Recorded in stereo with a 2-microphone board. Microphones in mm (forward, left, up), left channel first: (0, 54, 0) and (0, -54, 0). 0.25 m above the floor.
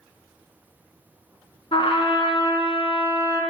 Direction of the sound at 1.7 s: 60° left (ahead or behind).